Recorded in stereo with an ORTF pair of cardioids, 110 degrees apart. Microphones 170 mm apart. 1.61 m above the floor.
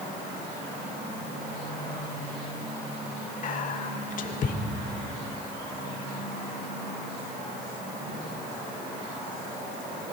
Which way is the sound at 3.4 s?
50° left.